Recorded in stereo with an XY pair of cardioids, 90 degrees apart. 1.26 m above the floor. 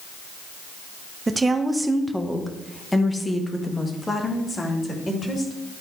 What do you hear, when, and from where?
1.3 s a woman speaking: 30° right, 0.9 m; by 5.5 s 35° left, 3 m